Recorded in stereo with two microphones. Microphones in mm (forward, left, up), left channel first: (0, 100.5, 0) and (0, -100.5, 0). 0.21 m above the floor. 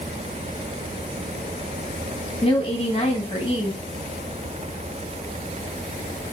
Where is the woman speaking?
30° left (ahead or behind), 1.1 m.